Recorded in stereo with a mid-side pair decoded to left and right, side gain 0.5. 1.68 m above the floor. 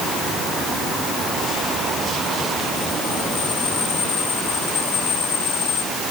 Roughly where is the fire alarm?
No fire alarm in this recording.